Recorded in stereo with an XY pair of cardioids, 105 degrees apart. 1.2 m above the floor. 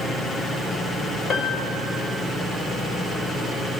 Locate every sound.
1.3 s a piano: 60° left, 1.2 m